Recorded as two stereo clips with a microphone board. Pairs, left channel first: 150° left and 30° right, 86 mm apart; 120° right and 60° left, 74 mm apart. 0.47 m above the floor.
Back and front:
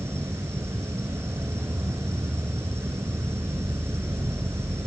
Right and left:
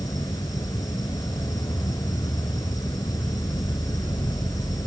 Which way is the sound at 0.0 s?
90° right.